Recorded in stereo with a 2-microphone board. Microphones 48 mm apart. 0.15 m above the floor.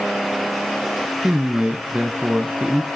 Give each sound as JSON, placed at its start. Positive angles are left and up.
{"t": 1.2, "sound": "a man speaking", "side_deg": -25, "distance_m": 1.2}